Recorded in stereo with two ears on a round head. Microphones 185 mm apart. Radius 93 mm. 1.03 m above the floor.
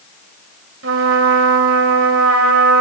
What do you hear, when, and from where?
0.8 s a trumpet: 65° right (ahead or behind), 3 m